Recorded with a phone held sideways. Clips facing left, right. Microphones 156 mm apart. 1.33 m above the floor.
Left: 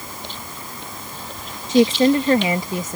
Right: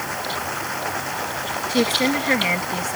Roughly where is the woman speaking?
Left.